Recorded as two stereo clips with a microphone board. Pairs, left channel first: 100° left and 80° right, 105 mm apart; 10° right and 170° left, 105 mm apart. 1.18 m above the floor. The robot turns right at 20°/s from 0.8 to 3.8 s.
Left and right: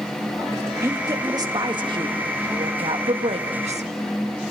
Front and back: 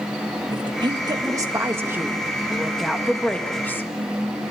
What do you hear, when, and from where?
0.5 s a woman speaking: 140° right, 1.7 m; by 3.9 s 80° right, 1.7 m